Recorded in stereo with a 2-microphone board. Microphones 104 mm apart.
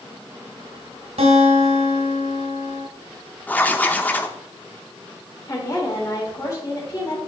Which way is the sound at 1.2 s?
85° right.